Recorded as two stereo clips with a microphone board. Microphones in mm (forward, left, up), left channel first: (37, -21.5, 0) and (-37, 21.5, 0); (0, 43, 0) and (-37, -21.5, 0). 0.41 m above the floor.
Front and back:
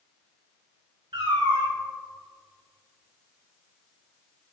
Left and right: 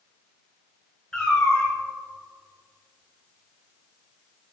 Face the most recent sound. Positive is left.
turn(degrees=140)